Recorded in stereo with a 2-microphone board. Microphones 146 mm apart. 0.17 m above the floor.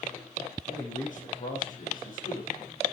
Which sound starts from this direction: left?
A man speaking, at 0.7 s.